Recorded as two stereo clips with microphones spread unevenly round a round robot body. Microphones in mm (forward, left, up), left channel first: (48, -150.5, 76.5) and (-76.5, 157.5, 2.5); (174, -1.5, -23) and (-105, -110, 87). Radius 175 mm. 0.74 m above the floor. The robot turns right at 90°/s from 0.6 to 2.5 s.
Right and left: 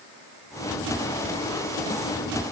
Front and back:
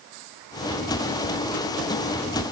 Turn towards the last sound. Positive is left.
No sound to turn to.